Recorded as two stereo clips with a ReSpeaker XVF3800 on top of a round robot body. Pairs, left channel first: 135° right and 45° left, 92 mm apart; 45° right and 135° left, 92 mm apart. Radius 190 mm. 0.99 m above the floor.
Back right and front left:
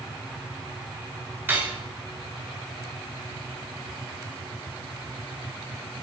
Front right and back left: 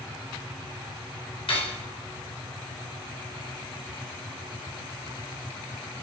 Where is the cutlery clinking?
25° right, 3 m.